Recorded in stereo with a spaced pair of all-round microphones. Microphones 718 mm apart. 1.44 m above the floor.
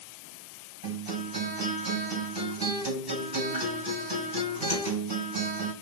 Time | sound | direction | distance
0.8 | a guitar | 30° right (ahead or behind) | 2 m